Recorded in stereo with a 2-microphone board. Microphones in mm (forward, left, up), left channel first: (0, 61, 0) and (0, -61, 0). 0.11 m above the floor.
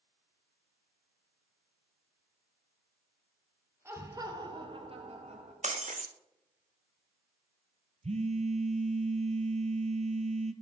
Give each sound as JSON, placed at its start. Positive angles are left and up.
{"t": 3.9, "sound": "laughter", "side_deg": -20, "distance_m": 2.0}
{"t": 5.6, "sound": "breaking glass", "side_deg": -70, "distance_m": 1.4}
{"t": 8.0, "sound": "a phone buzzing", "side_deg": -65, "distance_m": 1.0}